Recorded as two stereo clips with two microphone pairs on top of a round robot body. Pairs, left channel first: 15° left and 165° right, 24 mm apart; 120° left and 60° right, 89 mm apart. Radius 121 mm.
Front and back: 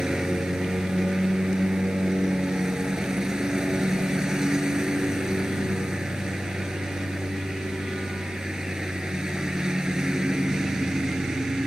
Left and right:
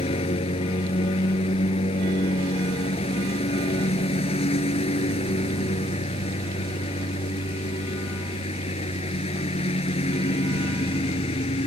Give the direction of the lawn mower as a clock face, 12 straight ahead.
8 o'clock.